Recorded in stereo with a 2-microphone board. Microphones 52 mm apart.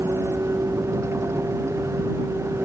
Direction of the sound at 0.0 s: 65° right (ahead or behind).